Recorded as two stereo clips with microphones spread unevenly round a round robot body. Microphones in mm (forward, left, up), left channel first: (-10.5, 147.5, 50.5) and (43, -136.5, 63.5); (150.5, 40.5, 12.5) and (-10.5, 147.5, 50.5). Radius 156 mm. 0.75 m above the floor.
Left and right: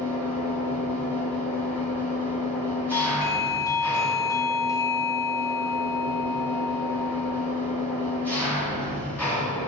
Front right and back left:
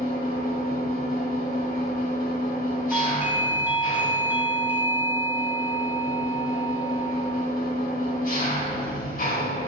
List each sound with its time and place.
0.0 s an engine running: 15° left, 2.5 m
2.9 s a doorbell: 45° left, 0.8 m